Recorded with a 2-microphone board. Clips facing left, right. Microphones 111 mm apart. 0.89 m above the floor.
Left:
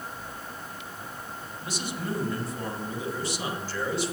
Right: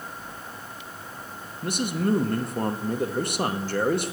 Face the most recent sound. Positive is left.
turn(degrees=-55)  # may be behind; listen again after turning